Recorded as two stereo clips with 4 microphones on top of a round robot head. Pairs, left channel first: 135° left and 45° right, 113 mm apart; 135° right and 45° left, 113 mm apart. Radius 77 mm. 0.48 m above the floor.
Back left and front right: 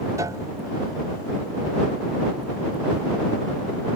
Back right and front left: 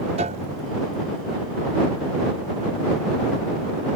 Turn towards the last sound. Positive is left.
turn(degrees=20)